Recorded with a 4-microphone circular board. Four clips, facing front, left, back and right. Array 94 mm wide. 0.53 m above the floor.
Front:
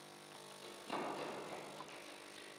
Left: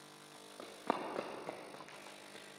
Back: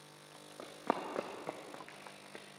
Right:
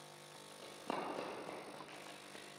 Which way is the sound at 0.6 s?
150° left.